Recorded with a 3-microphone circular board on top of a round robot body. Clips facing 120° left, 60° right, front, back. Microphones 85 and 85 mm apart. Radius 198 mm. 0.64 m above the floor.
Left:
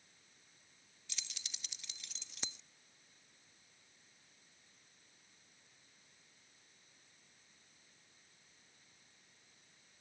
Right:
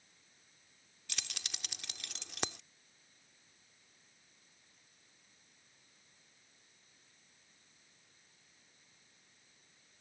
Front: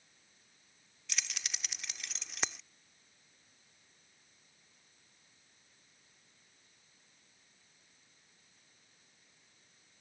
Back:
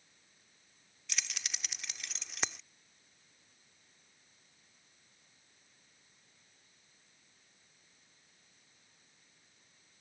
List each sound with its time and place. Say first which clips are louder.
1.1 s keys jangling: right 7 dB, even; 90° right